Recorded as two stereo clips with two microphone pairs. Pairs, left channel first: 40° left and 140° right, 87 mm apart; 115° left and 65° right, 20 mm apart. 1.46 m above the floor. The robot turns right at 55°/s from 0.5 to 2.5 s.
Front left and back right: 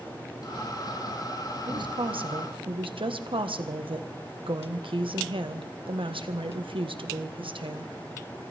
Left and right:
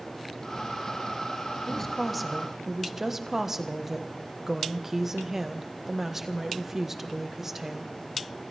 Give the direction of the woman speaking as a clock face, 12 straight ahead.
6 o'clock.